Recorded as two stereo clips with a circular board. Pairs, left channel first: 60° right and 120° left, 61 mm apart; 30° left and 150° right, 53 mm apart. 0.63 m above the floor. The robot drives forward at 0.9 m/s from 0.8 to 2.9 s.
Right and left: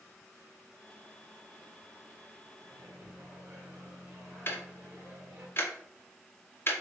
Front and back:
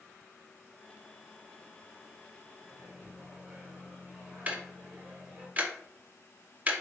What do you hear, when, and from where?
2.6 s a microwave: 150° left, 1.7 m; by 5.5 s 155° left, 1.9 m
4.5 s ticking: 95° right, 0.6 m